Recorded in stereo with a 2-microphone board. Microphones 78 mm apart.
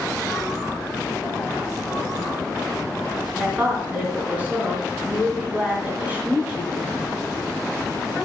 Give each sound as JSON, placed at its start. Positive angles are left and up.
{"t": 3.4, "sound": "a woman speaking", "side_deg": -20, "distance_m": 3.0}